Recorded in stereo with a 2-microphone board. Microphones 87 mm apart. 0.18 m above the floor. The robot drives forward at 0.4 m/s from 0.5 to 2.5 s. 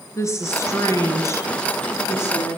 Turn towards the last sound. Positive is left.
turn(degrees=30)  # may be behind; listen again after turning